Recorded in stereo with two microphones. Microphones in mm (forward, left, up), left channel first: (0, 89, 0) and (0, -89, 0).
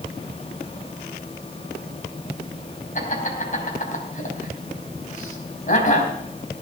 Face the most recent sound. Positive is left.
turn(degrees=50)  # may be behind; listen again after turning